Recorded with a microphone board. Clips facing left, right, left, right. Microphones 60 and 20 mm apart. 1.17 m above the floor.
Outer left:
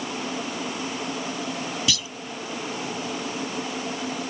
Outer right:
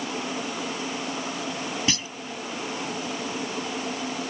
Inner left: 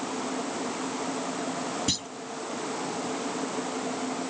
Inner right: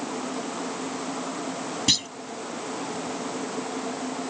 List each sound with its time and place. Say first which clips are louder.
1.9 s a clunk: outer right 1 dB, inner right 10 dB; 35° right (ahead or behind)